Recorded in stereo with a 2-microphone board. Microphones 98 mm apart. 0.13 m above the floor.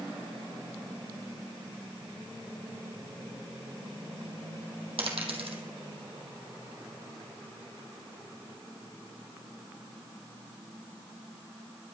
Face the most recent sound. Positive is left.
turn(degrees=-70)  # may be behind; listen again after turning